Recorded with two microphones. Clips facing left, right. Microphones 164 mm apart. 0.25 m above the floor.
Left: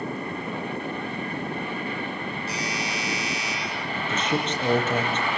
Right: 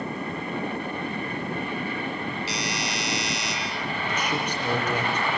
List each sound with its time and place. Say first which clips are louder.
2.5 s a doorbell: even; 70° right (ahead or behind), 10 m
4.0 s a man speaking: left 3 dB; 25° left (ahead or behind), 7.5 m